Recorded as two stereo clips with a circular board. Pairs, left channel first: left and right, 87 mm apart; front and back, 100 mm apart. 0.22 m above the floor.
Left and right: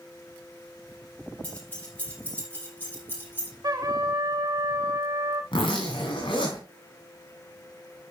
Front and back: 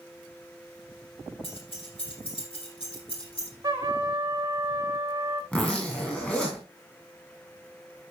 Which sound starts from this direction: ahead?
Keys jangling, at 1.4 s.